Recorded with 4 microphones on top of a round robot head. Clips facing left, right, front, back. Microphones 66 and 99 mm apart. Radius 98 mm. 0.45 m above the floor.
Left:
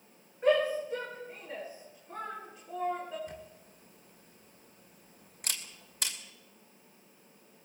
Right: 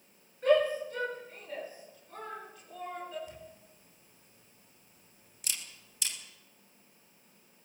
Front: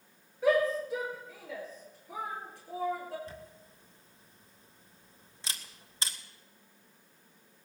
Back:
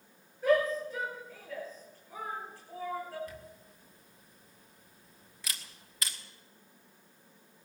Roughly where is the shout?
Ahead.